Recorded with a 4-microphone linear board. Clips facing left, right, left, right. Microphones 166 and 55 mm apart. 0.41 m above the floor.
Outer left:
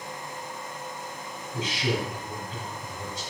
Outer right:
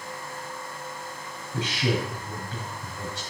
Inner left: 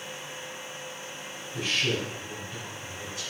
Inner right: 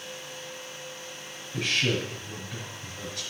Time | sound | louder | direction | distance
1.5 | a man speaking | outer right 2 dB, inner right 1 dB | 65° right (ahead or behind) | 5 m